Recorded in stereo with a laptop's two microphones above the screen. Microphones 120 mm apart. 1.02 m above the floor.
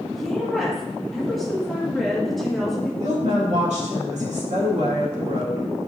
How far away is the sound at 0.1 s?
About 1.9 m.